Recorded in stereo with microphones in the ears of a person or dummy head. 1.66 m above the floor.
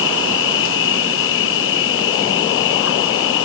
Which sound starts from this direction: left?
An insect, at 0.0 s.